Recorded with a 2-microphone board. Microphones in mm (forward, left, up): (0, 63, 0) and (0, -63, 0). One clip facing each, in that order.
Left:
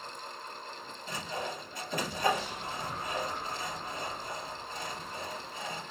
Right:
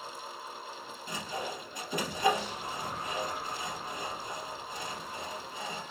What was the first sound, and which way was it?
Sawing, 15° right (ahead or behind).